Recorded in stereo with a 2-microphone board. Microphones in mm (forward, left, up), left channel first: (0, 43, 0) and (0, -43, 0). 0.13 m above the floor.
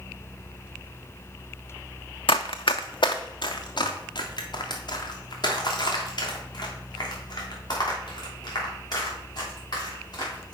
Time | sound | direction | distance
2.3 | running footsteps | 85° left | 0.5 m